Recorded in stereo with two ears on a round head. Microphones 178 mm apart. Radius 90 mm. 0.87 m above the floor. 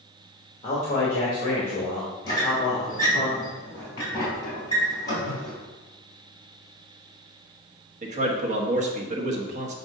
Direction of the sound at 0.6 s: 30° left (ahead or behind).